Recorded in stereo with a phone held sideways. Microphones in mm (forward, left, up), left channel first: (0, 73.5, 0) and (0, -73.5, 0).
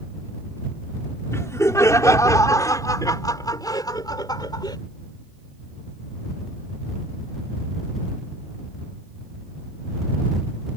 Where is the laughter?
20° left (ahead or behind); by 4.8 s 30° left (ahead or behind).